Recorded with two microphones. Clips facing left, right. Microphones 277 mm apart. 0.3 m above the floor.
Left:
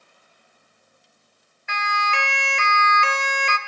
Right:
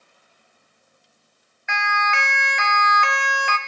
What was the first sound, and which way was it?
A siren, 40° left (ahead or behind).